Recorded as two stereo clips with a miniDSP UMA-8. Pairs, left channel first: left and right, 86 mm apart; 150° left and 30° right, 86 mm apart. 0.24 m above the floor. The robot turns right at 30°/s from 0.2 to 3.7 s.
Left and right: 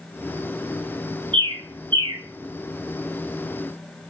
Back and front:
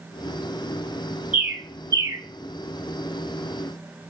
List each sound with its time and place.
1.3 s a bird: 100° right, 0.9 m; by 2.2 s 75° right, 0.9 m